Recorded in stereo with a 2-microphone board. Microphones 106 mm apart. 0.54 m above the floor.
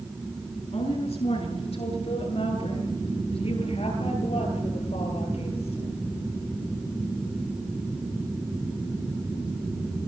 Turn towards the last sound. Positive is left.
turn(degrees=70)  # may be behind; listen again after turning